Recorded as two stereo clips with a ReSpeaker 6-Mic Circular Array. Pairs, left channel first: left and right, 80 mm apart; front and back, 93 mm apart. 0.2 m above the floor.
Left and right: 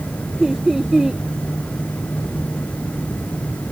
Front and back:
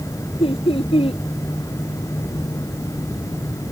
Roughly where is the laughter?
Ahead.